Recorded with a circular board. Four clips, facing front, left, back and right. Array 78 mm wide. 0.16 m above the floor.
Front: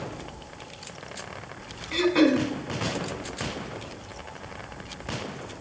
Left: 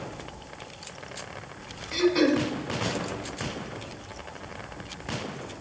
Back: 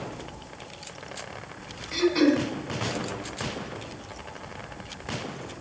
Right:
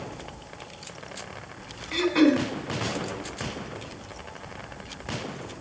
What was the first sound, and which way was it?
Throat clearing, 45° right.